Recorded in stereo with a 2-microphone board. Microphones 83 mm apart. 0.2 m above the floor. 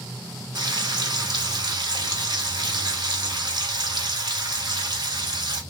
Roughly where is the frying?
Right.